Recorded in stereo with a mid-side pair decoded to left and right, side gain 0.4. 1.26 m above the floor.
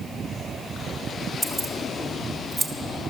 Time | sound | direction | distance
1.4 | keys jangling | 5° right | 2 m